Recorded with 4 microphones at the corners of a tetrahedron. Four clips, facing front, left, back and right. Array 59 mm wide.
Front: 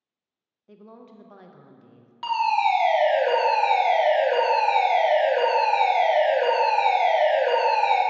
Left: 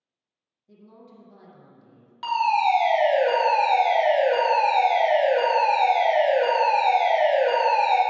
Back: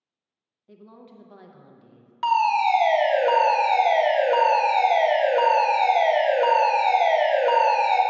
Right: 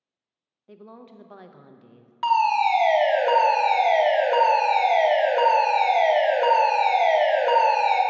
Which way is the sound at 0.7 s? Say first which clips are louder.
Right 5 dB, front 1 dB; 80° right.